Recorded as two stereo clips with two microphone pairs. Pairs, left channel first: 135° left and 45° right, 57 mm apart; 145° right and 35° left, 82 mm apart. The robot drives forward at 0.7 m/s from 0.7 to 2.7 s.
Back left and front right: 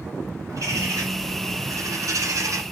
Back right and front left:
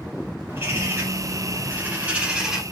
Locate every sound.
0.5 s a bird: 20° right, 2 m; by 2.6 s 50° right, 1.0 m